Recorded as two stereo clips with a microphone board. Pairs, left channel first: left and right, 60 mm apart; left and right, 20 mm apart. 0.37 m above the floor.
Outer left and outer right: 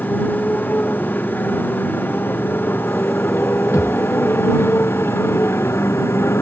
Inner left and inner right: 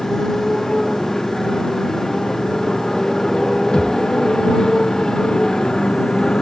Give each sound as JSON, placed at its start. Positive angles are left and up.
{"t": 0.0, "sound": "a motorcycle", "side_deg": 30}
{"t": 3.7, "sound": "a thud", "side_deg": 90}